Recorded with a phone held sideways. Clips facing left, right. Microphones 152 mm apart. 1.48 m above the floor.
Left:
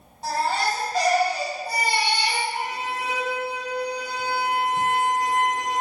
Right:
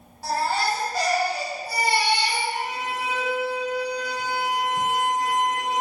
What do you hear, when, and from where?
0.2 s a baby crying: 25° left (ahead or behind), 1.9 m
2.5 s a violin: 45° left (ahead or behind), 1.6 m